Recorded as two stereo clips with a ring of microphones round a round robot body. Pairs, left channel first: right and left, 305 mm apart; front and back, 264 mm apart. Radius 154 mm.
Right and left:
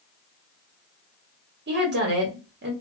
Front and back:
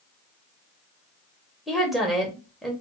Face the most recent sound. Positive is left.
turn(degrees=90)